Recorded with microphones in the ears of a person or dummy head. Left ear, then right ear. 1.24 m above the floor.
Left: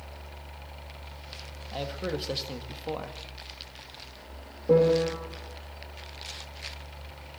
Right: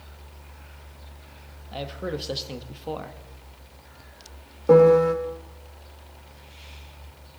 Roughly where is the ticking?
I don't hear ticking.